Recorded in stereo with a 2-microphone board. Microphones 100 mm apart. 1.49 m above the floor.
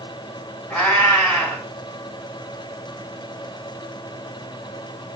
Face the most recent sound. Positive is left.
turn(degrees=15)  # may be behind; listen again after turning